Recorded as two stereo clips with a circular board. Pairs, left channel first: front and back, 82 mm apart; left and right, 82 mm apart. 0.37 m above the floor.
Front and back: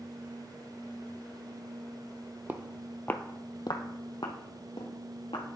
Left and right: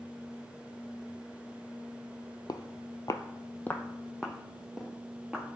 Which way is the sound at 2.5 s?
115° left.